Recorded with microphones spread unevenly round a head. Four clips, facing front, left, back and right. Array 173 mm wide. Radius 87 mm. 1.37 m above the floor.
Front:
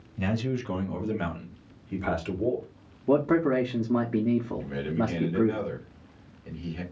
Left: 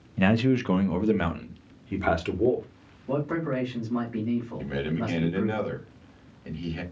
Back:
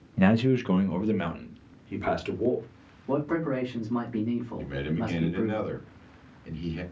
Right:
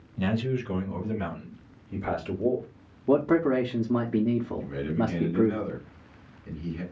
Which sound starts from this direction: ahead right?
A man speaking, at 3.1 s.